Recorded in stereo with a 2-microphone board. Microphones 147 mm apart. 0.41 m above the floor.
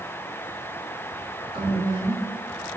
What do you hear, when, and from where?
1.5 s a woman speaking: 35° right (ahead or behind), 4 m